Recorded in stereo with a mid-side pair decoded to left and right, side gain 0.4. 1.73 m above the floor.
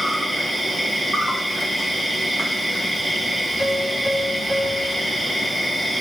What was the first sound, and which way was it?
An insect, 20° right.